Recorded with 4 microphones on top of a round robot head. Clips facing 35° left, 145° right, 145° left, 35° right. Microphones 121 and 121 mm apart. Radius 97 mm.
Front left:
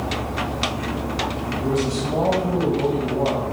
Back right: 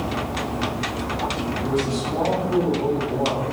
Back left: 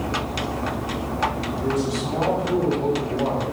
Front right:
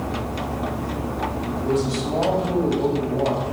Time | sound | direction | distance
1.6 | a man speaking | 25° left | 4 m